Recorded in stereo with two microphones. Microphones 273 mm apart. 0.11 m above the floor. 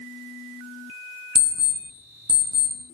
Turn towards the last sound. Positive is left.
turn(degrees=-70)  # may be behind; listen again after turning